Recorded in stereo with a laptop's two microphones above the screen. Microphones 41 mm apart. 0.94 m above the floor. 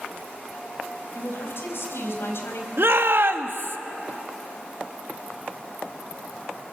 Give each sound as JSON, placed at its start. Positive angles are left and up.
{"t": 1.1, "sound": "a woman speaking", "side_deg": 70, "distance_m": 5.0}
{"t": 2.8, "sound": "a shout", "side_deg": -65, "distance_m": 1.5}